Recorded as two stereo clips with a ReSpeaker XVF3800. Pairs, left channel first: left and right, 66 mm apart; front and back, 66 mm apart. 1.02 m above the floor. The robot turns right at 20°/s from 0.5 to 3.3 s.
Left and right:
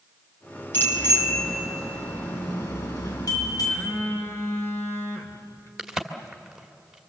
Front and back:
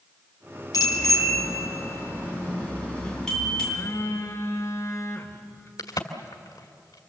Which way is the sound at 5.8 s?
5° right.